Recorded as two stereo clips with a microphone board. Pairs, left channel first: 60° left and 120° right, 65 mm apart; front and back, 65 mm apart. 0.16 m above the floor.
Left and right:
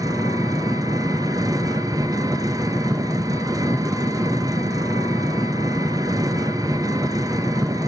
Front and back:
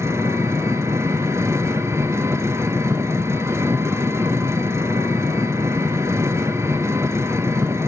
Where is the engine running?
135° right, 0.8 m.